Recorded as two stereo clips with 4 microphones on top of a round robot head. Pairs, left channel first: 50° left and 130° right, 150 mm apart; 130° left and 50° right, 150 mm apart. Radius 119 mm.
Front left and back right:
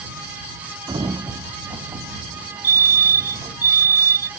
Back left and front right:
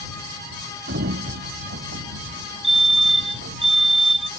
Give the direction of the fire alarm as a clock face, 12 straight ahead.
3 o'clock.